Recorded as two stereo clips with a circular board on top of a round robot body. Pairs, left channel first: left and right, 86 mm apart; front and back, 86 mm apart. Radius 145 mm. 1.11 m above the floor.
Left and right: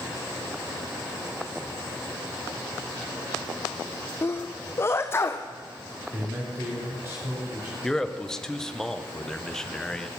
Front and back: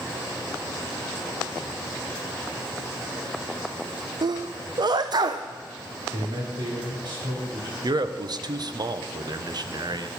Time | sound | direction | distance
4.2 | a sneeze | 150° left | 0.6 m
6.1 | a man speaking | 145° right | 4 m
7.8 | a man speaking | 175° left | 1.1 m